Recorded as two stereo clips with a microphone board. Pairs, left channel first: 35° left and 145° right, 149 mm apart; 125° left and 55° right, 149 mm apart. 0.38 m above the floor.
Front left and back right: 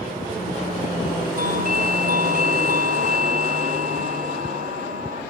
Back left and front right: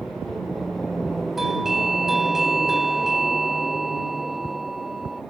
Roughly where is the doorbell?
Behind right.